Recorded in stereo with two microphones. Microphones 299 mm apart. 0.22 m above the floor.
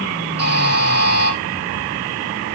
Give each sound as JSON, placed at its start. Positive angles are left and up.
{"t": 0.4, "sound": "a buzzer", "side_deg": -55, "distance_m": 4.5}